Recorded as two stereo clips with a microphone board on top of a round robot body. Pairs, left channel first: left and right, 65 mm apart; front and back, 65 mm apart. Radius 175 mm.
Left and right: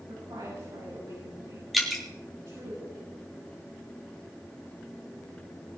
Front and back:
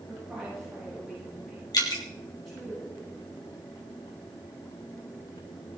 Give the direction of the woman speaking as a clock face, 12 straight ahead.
3 o'clock.